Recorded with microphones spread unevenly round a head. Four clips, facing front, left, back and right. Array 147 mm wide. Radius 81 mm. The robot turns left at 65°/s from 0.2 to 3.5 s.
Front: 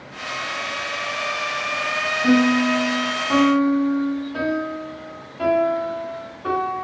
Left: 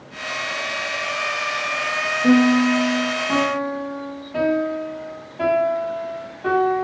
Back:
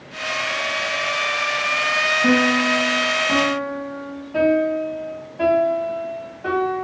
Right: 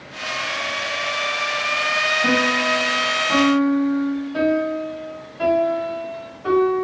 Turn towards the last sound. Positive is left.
turn(degrees=140)